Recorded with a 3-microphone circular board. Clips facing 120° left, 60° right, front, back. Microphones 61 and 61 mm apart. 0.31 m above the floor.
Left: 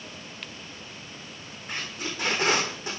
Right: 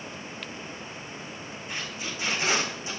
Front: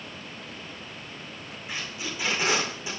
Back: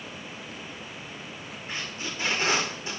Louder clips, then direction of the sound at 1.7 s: Left 2 dB, even; 75° left.